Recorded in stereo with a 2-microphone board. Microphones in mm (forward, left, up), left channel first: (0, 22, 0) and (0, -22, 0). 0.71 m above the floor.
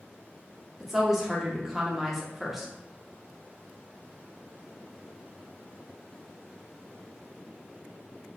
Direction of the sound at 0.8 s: 5° right (ahead or behind).